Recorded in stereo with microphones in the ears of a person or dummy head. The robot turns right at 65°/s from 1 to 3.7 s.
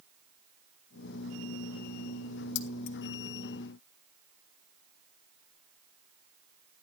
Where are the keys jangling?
75° left (ahead or behind), 0.8 m; by 3.0 s 50° left (ahead or behind), 0.8 m.